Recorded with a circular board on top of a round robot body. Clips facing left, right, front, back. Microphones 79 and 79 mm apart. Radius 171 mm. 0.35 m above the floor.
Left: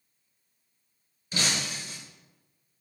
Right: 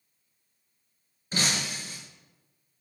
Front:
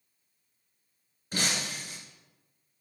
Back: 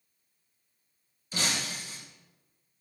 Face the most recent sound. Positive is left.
turn(degrees=-40)